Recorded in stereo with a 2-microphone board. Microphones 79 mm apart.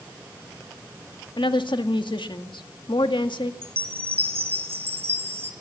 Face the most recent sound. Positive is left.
turn(degrees=-30)  # may be behind; listen again after turning